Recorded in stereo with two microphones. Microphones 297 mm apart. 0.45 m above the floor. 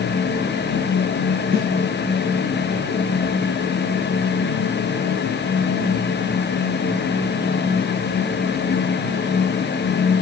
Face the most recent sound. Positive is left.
turn(degrees=-45)  # may be behind; listen again after turning